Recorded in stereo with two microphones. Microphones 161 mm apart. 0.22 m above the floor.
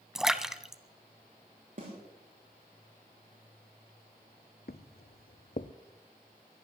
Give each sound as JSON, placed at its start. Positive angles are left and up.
{"t": 0.1, "sound": "a splash", "side_deg": -5, "distance_m": 0.6}
{"t": 1.8, "sound": "a snare drum", "side_deg": -55, "distance_m": 6.0}
{"t": 4.7, "sound": "footsteps", "side_deg": 75, "distance_m": 0.7}